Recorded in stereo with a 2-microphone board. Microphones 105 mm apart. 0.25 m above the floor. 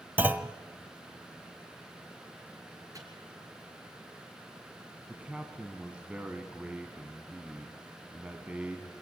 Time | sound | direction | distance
0.2 | a clunk | 15° right (ahead or behind) | 0.8 m
2.9 | a microwave | 35° right (ahead or behind) | 4.5 m
5.1 | a man speaking | 10° right (ahead or behind) | 1.8 m